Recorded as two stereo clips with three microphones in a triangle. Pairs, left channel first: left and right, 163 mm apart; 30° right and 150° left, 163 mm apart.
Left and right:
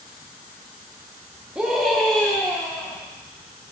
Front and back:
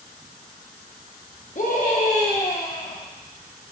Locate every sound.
1.6 s a scream: 10° right, 1.1 m; by 3.0 s 15° left, 1.8 m